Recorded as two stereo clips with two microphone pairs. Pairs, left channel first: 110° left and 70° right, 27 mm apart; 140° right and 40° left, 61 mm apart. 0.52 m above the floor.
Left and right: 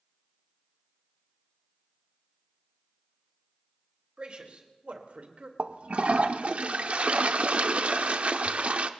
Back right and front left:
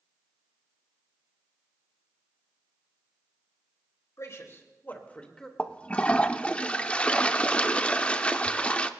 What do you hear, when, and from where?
4.2 s a man speaking: 115° right, 2.5 m; by 5.5 s 60° right, 2.0 m
5.6 s a toilet flushing: 80° right, 0.6 m